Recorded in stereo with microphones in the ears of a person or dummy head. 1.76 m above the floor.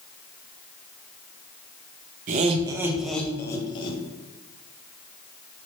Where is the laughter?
40° right (ahead or behind), 0.5 m; by 4.0 s 30° left (ahead or behind), 0.9 m.